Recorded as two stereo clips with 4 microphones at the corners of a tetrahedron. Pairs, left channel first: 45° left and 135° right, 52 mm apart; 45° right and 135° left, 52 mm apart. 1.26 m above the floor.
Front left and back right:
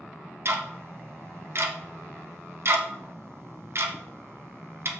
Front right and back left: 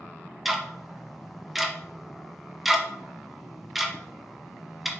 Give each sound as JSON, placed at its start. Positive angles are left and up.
{"t": 0.5, "sound": "ticking", "azimuth_deg": -140, "distance_m": 0.8}